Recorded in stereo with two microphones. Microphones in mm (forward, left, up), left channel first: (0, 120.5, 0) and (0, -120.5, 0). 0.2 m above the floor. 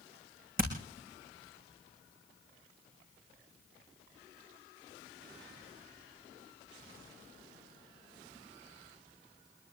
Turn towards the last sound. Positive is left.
turn(degrees=-35)  # may be behind; listen again after turning